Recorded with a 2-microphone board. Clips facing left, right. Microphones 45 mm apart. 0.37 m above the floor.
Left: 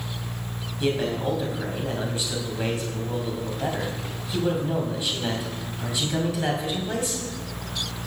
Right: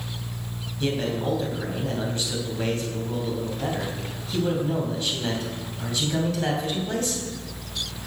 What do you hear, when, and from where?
0.8 s a man speaking: 15° left (ahead or behind), 2.5 m